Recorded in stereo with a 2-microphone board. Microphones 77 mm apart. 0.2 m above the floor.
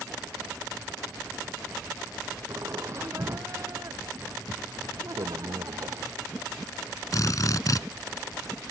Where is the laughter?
35° right (ahead or behind); by 6.1 s 50° right (ahead or behind).